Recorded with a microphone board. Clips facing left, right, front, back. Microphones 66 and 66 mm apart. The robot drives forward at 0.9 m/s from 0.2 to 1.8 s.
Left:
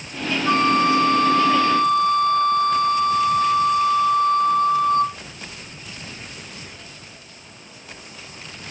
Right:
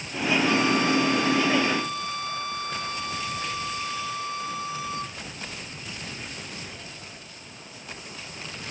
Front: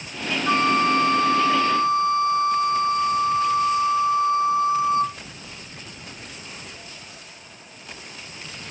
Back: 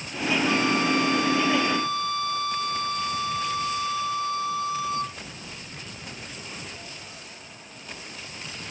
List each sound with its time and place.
0.5 s a flute: 45° left; by 5.2 s 60° left